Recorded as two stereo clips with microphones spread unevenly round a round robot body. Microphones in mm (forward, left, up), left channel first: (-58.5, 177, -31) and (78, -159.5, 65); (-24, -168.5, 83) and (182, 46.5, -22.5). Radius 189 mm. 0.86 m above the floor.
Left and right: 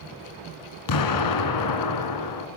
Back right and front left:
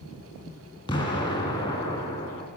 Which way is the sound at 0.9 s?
155° left.